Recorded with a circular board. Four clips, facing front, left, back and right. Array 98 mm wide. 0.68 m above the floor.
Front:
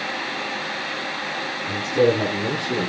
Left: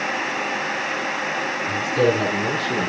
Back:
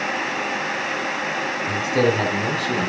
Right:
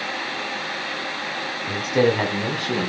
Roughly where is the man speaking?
Behind right.